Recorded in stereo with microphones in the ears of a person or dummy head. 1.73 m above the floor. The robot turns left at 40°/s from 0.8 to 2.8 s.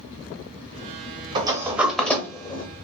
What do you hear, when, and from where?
1.4 s a sliding door: 25° right (ahead or behind), 0.7 m; by 2.6 s 25° left (ahead or behind), 0.7 m